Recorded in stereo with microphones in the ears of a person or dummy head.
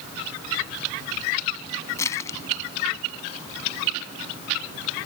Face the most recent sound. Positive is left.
turn(degrees=20)  # may be behind; listen again after turning